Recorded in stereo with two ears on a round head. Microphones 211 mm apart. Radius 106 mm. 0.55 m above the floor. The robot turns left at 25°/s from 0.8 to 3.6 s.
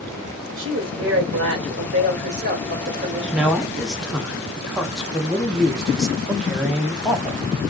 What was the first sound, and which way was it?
A woman speaking, 80° right.